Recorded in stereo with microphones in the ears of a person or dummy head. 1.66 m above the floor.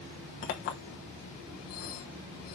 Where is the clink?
50° left (ahead or behind), 1.0 m.